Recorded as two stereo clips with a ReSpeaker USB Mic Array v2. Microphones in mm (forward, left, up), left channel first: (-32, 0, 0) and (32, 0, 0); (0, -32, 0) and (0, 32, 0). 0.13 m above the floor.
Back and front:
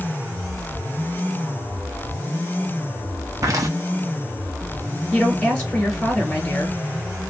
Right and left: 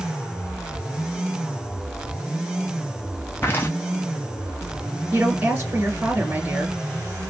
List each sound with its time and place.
3.4 s footsteps: 35° right, 0.6 m
5.1 s a woman speaking: 110° left, 1.8 m